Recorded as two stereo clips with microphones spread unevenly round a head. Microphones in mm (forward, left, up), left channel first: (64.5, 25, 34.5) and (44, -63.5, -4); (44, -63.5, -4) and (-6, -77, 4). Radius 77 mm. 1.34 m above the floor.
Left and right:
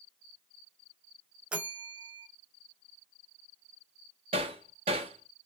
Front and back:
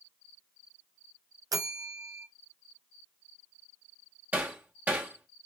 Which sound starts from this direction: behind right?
Hammering, at 4.3 s.